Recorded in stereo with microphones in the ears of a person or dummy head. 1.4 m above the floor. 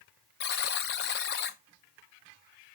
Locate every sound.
0.4 s a buzzer: 55° left (ahead or behind), 0.7 m